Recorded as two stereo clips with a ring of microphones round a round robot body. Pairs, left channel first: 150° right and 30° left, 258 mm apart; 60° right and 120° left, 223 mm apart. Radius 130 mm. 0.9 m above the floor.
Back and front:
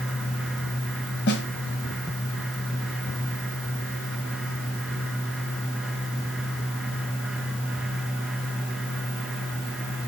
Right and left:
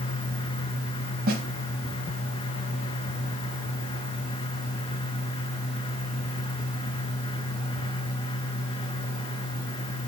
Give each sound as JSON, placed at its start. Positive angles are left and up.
{"t": 1.3, "sound": "a snare drum", "azimuth_deg": 170, "distance_m": 1.1}